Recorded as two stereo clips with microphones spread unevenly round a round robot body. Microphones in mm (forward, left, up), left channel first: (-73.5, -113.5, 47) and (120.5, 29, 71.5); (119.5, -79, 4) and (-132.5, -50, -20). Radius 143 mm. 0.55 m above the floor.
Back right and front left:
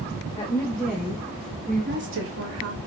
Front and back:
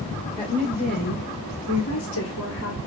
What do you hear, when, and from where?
0.4 s a woman speaking: 70° right, 2.5 m; by 2.8 s 45° left, 1.7 m